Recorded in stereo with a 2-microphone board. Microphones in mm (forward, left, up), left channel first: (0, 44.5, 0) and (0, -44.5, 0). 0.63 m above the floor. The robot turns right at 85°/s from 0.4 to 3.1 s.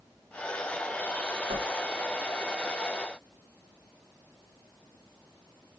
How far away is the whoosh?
About 2 m.